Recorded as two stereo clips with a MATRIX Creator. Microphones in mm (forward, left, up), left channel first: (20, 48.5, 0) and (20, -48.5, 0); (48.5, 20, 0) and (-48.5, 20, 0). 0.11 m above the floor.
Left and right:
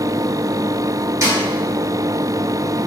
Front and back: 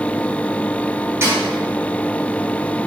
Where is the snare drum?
130° right, 1.4 m.